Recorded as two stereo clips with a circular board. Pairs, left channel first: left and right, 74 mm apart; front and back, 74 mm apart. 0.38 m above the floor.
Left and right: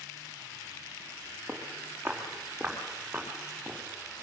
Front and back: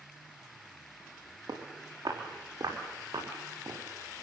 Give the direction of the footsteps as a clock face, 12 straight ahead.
5 o'clock.